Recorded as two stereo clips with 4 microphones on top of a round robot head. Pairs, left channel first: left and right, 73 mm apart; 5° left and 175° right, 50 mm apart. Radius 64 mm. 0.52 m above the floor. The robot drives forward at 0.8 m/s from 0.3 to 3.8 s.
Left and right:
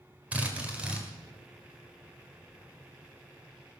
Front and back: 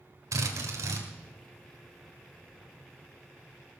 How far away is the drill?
About 1.9 m.